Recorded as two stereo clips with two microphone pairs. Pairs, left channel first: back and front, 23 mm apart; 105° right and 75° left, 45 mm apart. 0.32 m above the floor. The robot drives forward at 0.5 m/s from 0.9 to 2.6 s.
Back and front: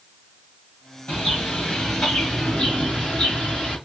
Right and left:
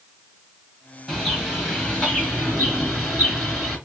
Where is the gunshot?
No gunshot in this recording.